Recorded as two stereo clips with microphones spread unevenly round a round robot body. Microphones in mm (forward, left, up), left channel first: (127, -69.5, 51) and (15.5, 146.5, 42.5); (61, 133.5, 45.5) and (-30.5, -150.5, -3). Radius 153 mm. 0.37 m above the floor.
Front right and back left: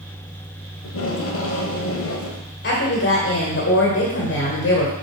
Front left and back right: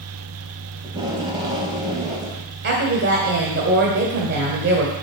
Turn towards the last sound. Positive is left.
turn(degrees=-70)